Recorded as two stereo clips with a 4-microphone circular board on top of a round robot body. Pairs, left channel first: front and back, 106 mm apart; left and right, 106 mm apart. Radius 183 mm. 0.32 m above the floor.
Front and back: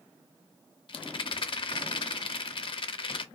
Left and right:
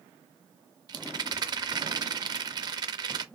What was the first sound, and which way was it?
A rattle, 40° right.